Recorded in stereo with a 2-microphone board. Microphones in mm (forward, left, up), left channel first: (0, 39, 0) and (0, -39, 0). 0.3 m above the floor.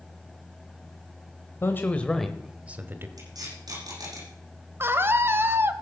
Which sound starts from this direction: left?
A man speaking, at 1.6 s.